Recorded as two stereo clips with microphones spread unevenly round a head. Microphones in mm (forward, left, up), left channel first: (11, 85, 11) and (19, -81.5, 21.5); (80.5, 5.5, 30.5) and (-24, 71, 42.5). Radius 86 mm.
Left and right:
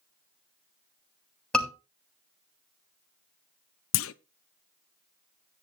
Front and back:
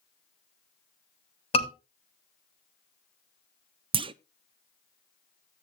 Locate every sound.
1.5 s a scream: 5° left, 7 m
3.9 s a clunk: 105° left, 0.5 m